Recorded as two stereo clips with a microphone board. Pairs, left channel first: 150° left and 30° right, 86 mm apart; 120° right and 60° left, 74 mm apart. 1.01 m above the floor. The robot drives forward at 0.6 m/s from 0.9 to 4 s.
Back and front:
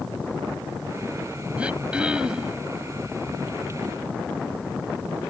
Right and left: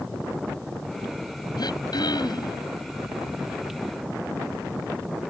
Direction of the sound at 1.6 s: 105° right.